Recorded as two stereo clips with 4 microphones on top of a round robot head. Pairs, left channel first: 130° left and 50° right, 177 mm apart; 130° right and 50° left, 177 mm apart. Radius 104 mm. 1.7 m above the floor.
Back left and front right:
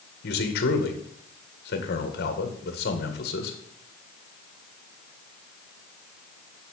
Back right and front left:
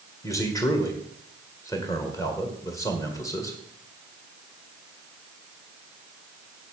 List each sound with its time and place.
0.2 s a man speaking: 160° left, 1.9 m